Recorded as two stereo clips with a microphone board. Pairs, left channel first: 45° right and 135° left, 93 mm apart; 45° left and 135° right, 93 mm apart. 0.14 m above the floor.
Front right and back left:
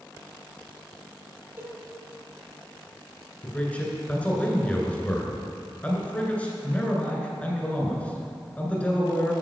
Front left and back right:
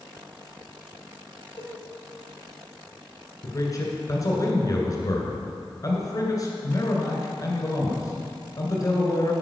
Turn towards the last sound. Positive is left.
turn(degrees=25)